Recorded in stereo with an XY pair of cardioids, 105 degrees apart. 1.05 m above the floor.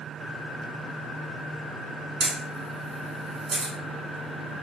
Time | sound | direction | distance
2.2 | a camera shutter | 65° right | 1.7 m